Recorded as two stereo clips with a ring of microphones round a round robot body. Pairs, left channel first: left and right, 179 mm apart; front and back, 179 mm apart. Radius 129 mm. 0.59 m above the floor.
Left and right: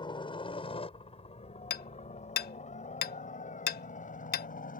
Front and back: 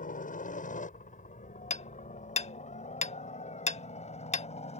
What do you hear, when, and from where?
0.0 s a helicopter: 30° left; by 4.8 s 50° left
1.7 s hammering: 55° left